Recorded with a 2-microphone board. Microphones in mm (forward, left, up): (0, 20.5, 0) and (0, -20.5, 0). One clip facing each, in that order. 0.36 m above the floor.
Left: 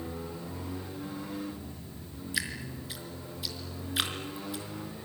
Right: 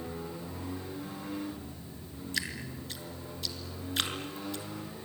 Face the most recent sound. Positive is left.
turn(degrees=5)  # may be behind; listen again after turning